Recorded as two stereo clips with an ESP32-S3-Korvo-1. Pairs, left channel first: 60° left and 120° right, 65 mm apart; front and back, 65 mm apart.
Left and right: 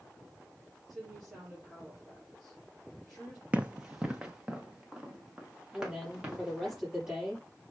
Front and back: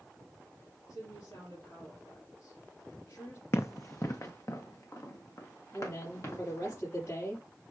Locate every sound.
0.9 s a woman speaking: 30° right, 4.5 m
3.5 s running footsteps: 50° right, 0.6 m; by 6.7 s 40° right, 4.5 m
5.7 s a woman speaking: 40° right, 5 m